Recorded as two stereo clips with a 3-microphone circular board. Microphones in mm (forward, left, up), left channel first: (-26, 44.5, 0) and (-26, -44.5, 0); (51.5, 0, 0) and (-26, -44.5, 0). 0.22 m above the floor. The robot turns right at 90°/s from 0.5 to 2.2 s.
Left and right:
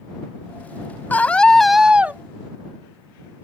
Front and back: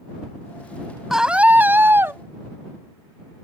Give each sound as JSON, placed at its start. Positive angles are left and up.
{"t": 1.1, "sound": "a scream", "azimuth_deg": 130}